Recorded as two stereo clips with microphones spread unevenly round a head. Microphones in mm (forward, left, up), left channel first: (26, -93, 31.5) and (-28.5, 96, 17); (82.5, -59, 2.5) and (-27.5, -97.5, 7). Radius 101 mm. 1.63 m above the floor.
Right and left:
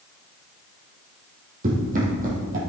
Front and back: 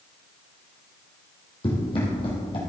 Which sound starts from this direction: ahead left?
Running footsteps, at 1.6 s.